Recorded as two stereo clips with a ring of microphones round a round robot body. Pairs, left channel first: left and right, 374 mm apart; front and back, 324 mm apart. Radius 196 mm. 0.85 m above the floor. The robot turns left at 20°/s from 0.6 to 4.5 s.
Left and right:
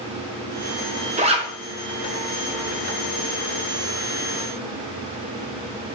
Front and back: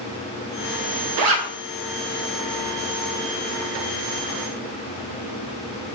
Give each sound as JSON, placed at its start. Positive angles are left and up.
{"t": 1.2, "sound": "a zipper", "azimuth_deg": -160, "distance_m": 0.6}